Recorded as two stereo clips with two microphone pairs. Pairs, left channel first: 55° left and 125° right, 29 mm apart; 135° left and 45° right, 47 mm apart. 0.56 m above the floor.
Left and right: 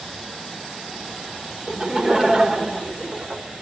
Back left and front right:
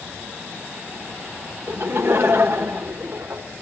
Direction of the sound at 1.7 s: 60° right.